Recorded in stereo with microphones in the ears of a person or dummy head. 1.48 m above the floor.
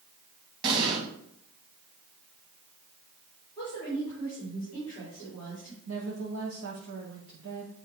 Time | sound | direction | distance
0.6 | an explosion | 25° right (ahead or behind) | 1.9 m
3.6 | a woman speaking | 20° left (ahead or behind) | 4 m
5.9 | a woman speaking | 80° right | 1.7 m